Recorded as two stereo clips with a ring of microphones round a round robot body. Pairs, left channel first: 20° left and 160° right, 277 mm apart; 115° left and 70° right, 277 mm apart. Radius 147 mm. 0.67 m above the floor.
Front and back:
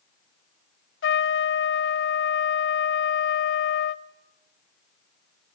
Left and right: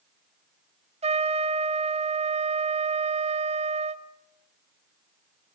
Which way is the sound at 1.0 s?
5° right.